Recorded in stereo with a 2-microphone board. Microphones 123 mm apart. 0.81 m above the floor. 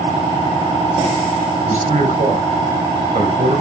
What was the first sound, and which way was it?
A man speaking, 80° right.